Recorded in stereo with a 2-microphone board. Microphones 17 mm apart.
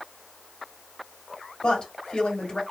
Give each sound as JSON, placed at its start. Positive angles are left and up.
{"t": 1.6, "sound": "a woman speaking", "side_deg": 70, "distance_m": 2.0}